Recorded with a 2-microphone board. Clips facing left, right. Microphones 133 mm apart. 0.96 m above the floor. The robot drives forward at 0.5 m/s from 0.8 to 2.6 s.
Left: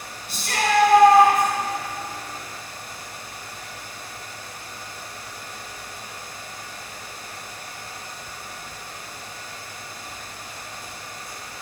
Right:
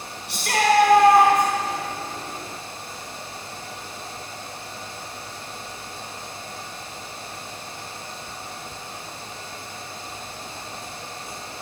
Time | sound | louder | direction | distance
0.3 | a shout | right 3 dB | 70° right (ahead or behind) | 4.5 m